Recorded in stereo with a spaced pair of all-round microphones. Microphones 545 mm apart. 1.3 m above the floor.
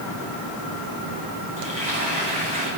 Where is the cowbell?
I don't hear a cowbell.